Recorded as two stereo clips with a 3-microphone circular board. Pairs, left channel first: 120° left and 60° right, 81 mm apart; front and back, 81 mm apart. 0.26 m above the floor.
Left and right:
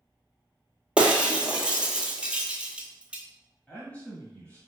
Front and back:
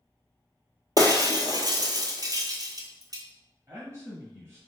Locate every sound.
1.0 s breaking glass: 135° right, 0.9 m
3.7 s a man speaking: straight behind, 1.2 m